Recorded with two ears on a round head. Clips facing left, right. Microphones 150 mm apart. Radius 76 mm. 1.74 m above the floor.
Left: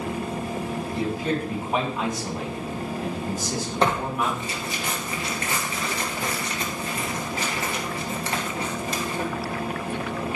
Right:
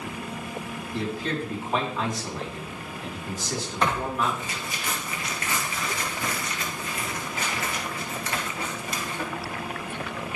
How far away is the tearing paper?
About 1.8 m.